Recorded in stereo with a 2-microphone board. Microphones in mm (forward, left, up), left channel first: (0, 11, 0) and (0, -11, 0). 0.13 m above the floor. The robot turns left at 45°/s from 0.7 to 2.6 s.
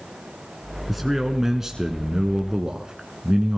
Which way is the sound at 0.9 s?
5° right (ahead or behind).